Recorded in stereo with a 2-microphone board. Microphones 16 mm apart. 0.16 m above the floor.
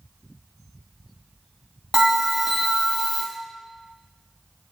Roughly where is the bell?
Right.